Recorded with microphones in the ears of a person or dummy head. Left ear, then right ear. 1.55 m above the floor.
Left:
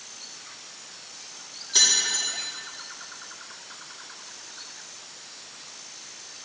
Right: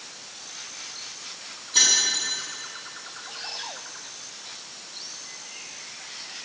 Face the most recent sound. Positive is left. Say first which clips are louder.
# right 1 dB
turn(degrees=70)  # may be behind; listen again after turning